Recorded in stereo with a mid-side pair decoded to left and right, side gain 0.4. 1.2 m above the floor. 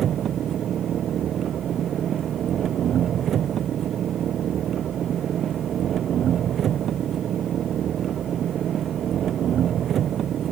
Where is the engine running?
65° right.